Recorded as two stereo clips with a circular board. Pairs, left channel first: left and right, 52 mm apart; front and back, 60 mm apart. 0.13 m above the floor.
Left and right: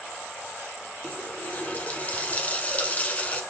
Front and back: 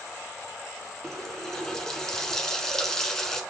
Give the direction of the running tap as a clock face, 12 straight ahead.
9 o'clock.